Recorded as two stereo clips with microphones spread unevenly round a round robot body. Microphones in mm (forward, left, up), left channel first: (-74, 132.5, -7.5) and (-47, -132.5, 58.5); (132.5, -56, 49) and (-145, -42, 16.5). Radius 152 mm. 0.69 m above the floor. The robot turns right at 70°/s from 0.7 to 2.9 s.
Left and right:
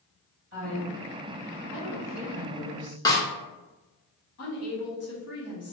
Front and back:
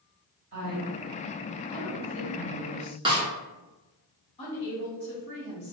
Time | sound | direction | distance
0.5 | a woman speaking | 130° right | 1.9 m
3.0 | a snare drum | 130° left | 0.6 m
4.4 | a woman speaking | 70° left | 1.4 m